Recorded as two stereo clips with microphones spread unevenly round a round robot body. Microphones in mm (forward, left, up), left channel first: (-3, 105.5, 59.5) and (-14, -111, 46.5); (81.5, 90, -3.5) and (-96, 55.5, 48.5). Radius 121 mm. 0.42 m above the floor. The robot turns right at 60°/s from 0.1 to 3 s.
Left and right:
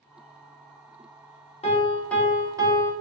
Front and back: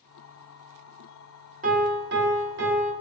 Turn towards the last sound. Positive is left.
turn(degrees=-135)